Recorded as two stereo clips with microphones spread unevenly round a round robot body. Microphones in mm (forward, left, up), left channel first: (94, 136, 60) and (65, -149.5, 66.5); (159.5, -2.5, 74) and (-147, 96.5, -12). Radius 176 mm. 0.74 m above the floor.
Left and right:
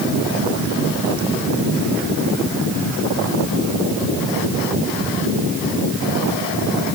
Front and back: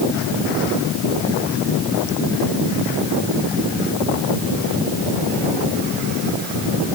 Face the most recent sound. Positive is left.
No sound to turn to.